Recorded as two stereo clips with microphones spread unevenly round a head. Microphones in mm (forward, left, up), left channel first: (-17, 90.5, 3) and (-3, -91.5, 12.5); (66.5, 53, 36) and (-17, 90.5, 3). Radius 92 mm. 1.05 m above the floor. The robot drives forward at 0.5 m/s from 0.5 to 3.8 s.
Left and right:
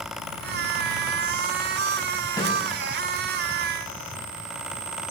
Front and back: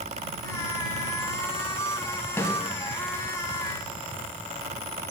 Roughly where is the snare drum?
Ahead left.